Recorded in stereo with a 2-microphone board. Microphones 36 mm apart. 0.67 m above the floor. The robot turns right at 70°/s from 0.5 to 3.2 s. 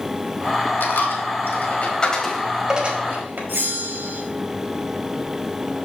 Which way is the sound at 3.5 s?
75° right (ahead or behind).